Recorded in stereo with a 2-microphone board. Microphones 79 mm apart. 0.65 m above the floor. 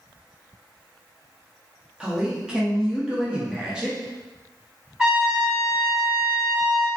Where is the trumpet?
10° right (ahead or behind), 1.2 m.